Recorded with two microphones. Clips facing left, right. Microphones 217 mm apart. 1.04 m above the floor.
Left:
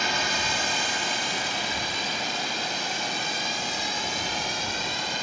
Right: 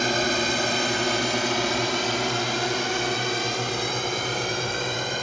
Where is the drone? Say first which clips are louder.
Right 7 dB; 50° right (ahead or behind); by 5.2 s 55° right (ahead or behind).